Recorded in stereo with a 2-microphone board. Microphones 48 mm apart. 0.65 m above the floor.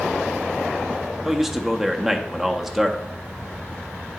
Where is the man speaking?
5° right (ahead or behind), 0.6 m.